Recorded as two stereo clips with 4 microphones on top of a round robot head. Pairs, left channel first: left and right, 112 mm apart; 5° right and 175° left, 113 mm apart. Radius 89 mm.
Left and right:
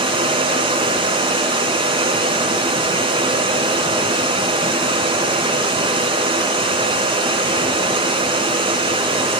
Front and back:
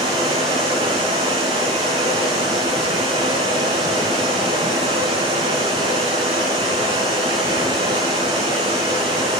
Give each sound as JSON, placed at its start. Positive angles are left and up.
{"t": 0.0, "sound": "running water", "azimuth_deg": -135, "distance_m": 4.5}